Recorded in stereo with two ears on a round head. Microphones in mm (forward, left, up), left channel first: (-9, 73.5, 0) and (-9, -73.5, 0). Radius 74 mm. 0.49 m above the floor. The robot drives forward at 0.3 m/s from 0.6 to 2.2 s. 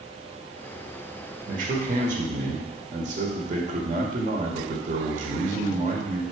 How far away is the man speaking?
About 1.5 m.